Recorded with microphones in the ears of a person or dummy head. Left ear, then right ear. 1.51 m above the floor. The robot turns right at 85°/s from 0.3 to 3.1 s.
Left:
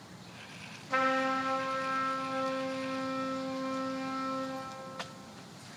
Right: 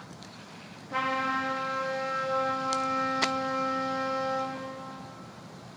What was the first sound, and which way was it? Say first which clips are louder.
A trumpet: even; 110° left.